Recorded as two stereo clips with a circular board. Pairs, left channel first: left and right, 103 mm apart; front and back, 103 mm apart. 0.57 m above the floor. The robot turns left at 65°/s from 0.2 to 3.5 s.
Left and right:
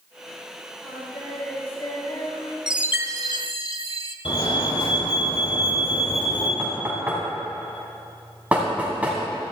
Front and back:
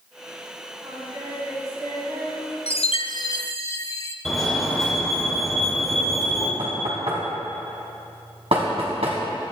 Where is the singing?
140° right, 4 m; by 2.6 s 110° left, 4 m.